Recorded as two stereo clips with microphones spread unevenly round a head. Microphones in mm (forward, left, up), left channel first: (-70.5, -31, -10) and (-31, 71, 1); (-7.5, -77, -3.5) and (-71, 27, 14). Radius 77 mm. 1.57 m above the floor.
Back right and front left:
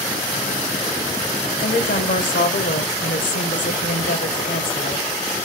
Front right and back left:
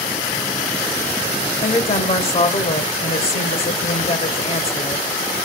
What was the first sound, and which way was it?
A woman speaking, 100° right.